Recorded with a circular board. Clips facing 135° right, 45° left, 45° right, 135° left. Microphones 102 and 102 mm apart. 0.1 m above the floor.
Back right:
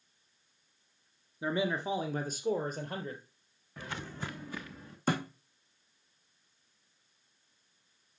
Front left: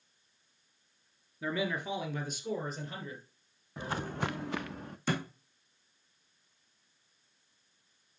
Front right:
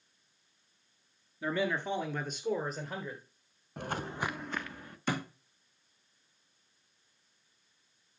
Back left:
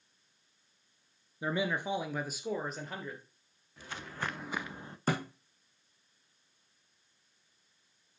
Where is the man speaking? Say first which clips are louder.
Back right 2 dB, front right 1 dB; 175° right, 1.3 m; by 3.2 s 130° right, 2 m.